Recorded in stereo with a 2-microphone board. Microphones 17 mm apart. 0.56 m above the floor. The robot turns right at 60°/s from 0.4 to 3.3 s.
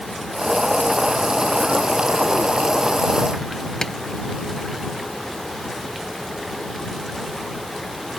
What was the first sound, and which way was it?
Tapping, 35° left (ahead or behind).